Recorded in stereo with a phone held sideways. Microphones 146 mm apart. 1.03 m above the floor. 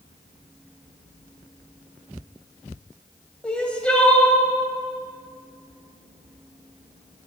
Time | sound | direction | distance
3.4 | crying | 5° left (ahead or behind) | 1.9 m